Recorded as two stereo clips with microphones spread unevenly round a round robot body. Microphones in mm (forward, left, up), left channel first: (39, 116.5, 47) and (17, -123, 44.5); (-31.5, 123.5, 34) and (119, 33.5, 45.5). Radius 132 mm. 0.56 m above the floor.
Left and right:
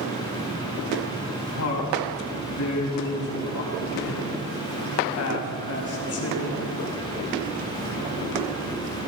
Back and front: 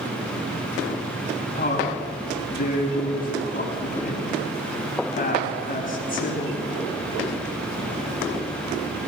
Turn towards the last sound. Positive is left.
turn(degrees=110)